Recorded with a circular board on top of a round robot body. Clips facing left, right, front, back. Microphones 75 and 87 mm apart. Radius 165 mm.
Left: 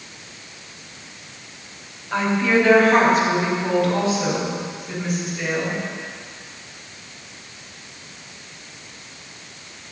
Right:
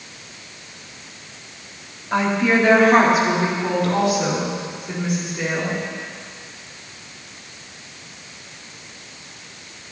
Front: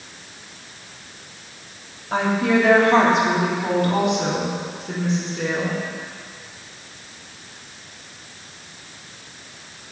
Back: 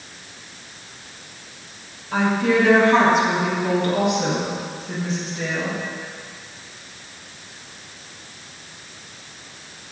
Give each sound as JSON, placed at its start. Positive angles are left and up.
{"t": 2.1, "sound": "a woman speaking", "azimuth_deg": -15, "distance_m": 3.0}